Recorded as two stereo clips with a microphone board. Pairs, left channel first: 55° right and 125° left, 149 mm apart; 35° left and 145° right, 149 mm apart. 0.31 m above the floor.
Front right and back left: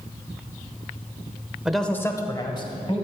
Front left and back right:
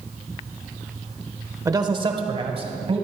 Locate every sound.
1.6 s a man speaking: 160° right, 0.9 m; by 3.0 s 100° right, 2 m